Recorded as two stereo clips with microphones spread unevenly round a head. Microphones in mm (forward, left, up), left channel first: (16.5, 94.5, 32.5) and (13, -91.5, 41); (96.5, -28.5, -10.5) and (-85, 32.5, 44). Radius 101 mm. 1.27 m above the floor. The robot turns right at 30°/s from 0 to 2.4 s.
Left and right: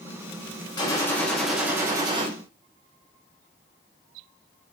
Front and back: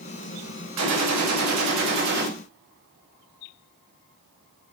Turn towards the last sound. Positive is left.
turn(degrees=-150)